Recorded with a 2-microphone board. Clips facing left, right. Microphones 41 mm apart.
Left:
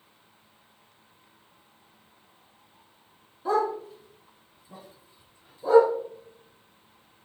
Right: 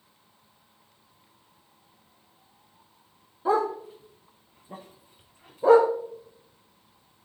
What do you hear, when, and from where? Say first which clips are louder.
3.5 s a dog barking: right 1 dB; 15° right (ahead or behind), 3 m; by 5.9 s 80° right, 2 m